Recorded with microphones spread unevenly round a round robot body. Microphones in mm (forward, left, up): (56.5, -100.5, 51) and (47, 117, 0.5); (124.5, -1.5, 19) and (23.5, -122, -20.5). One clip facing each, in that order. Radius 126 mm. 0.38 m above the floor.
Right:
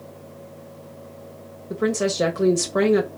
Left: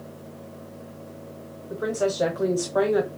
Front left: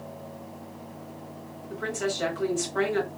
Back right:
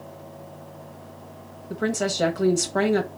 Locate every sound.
1.7 s a woman speaking: 155° right, 1.5 m